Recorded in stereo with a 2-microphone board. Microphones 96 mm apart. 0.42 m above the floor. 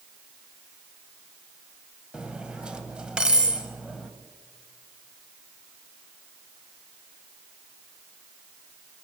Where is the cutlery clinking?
10° right (ahead or behind), 1.1 m.